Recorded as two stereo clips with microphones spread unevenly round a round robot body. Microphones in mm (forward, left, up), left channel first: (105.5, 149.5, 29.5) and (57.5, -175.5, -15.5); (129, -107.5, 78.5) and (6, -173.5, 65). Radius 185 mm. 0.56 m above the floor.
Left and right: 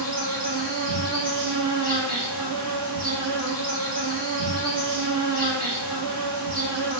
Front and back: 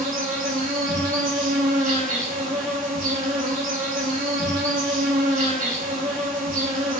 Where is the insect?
170° right, 1.0 m.